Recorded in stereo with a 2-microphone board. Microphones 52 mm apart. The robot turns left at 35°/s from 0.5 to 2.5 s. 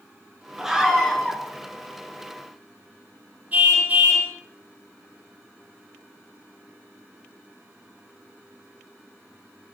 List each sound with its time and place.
0.6 s a scream: 10° right (ahead or behind), 5 m; by 1.4 s 15° left (ahead or behind), 5 m
3.5 s a car horn: 30° right (ahead or behind), 6 m